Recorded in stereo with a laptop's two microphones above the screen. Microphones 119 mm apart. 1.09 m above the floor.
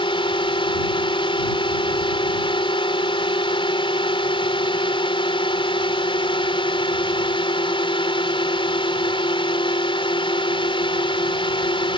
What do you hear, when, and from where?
0.0 s a drone: 50° left (ahead or behind)